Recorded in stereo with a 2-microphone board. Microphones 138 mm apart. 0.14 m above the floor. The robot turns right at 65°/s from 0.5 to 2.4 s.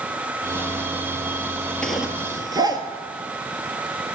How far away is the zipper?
About 1.5 m.